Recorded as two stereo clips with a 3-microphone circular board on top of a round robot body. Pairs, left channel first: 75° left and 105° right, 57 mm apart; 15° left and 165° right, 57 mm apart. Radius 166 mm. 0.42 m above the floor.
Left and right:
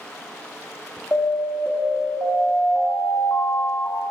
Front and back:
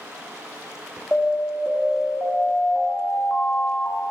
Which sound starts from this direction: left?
An alarm, at 1.1 s.